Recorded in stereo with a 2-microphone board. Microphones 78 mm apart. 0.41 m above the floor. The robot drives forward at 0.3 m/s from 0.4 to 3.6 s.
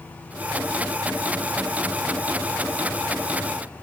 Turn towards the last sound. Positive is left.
No sound to turn to.